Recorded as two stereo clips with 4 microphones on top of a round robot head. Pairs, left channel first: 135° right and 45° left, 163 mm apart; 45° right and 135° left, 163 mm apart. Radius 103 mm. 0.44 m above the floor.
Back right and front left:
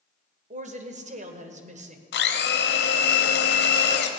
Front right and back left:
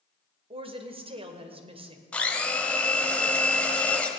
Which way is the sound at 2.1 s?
125° right.